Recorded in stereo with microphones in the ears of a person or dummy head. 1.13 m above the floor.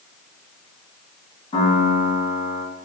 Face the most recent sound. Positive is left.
turn(degrees=30)  # may be behind; listen again after turning